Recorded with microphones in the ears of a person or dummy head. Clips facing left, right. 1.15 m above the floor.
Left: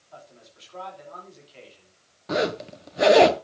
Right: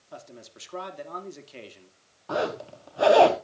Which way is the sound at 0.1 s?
65° right (ahead or behind).